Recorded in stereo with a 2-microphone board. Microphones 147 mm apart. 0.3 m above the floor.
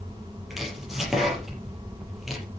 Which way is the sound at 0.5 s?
Centre (ahead or behind).